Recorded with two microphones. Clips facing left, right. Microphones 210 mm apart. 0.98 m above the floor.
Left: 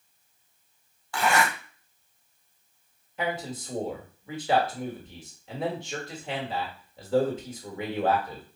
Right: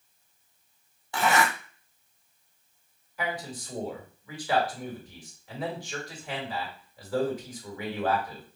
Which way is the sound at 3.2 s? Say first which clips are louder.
Left 3 dB; 25° left (ahead or behind).